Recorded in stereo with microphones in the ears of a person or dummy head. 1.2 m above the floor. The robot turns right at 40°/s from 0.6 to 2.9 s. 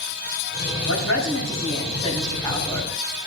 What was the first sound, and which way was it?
A woman speaking, 95° left.